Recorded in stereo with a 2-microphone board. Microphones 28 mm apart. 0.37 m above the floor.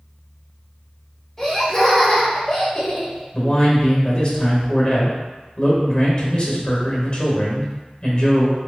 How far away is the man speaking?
About 1.0 m.